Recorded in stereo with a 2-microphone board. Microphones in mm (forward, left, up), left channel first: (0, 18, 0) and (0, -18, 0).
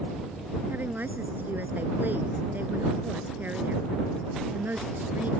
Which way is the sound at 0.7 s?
65° right (ahead or behind).